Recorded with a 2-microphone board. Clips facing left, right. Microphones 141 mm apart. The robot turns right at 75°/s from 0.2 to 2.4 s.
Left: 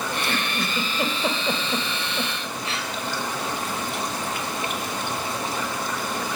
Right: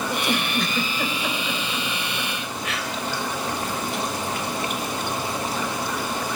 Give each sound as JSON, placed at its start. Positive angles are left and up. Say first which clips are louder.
{"t": 0.1, "sound": "a giggle", "louder": "right 3 dB", "side_deg": -20, "distance_m": 1.6}